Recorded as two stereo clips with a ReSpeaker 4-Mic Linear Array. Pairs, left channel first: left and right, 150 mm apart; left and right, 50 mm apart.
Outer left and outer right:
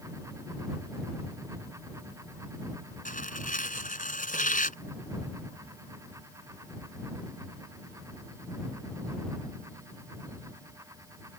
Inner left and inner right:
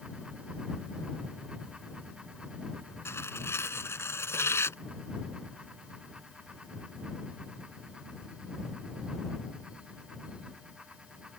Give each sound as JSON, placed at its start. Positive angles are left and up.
{"t": 3.0, "sound": "tearing paper", "side_deg": 60}